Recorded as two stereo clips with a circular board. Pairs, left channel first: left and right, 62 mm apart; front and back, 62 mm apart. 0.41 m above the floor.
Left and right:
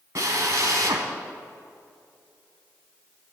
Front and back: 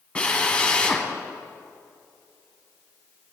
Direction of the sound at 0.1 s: 70° right.